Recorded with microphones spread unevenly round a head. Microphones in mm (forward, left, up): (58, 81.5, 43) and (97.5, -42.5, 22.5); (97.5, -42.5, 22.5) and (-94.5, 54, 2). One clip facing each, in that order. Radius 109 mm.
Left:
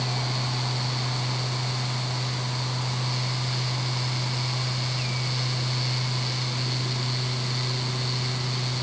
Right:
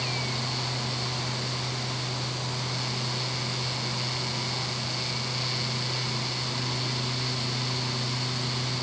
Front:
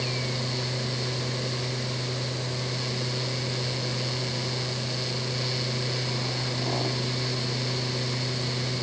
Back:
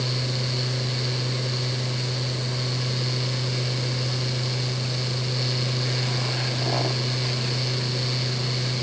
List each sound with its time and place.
Only background noise.